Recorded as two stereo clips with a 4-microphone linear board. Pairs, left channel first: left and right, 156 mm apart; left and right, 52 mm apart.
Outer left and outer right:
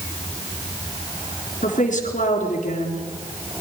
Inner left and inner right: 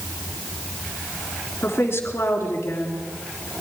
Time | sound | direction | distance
1.6 | a woman speaking | 55° left (ahead or behind) | 3.5 m